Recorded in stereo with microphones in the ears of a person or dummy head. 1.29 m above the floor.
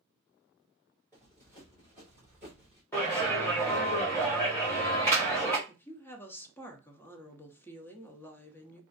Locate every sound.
1.1 s running footsteps: 15° left (ahead or behind), 1.5 m; by 2.8 s 5° left (ahead or behind), 1.3 m
2.9 s a clap: 15° left (ahead or behind), 1.0 m
5.7 s a woman speaking: 15° left (ahead or behind), 0.6 m